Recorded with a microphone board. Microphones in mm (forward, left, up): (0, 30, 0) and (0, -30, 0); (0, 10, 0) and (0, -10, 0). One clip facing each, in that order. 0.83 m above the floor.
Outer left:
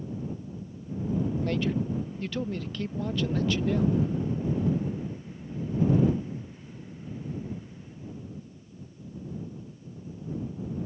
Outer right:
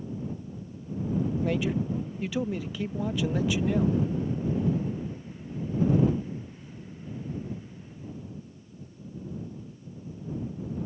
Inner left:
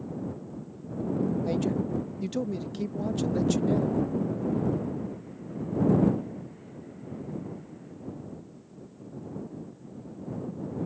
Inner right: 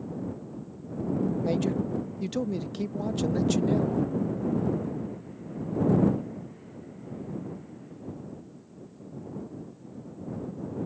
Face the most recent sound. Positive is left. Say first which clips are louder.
# outer right 1 dB, inner right 1 dB
turn(degrees=-10)  # may be behind; listen again after turning